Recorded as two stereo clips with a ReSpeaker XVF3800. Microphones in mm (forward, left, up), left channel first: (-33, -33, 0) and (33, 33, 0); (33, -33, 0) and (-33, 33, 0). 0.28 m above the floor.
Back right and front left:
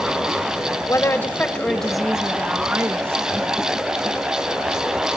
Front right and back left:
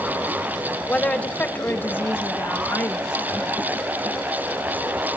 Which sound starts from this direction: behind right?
A woman speaking, at 0.9 s.